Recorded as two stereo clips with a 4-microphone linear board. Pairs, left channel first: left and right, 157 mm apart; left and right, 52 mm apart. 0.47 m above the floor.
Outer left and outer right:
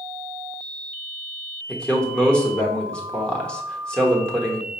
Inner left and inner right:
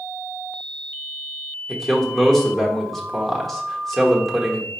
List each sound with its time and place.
1.7 s a man speaking: 5° left (ahead or behind), 1.0 m